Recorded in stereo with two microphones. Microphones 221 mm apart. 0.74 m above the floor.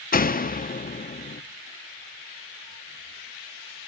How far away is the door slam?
About 0.7 m.